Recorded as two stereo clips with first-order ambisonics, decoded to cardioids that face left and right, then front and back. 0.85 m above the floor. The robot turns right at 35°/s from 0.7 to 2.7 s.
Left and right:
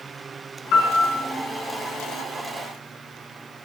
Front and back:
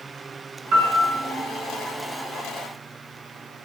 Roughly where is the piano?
Behind left.